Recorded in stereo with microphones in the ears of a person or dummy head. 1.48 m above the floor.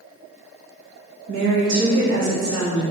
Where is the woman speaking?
70° right (ahead or behind), 0.6 m.